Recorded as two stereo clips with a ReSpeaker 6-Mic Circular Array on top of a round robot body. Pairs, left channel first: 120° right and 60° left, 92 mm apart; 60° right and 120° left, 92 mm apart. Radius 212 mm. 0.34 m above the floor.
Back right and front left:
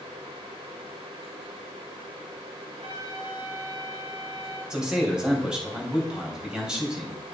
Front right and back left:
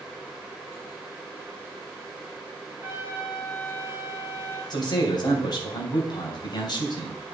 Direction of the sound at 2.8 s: 55° left.